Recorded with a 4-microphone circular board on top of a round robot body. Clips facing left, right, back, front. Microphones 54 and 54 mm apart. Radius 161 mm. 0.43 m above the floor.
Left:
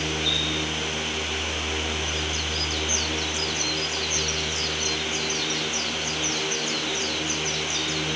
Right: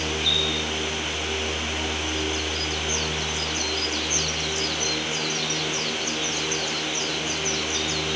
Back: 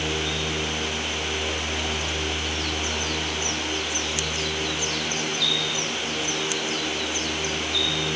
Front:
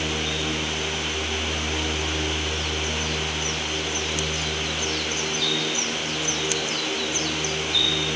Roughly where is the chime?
No chime in this recording.